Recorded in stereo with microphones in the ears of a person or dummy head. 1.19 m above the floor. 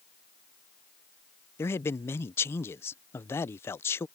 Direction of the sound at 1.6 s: 10° left (ahead or behind).